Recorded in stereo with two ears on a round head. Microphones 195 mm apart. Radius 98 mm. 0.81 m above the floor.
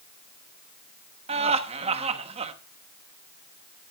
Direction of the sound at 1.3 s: 30° right (ahead or behind).